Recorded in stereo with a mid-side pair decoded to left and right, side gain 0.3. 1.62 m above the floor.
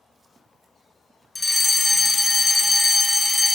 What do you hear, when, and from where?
1.4 s a fire alarm: 30° left, 3.5 m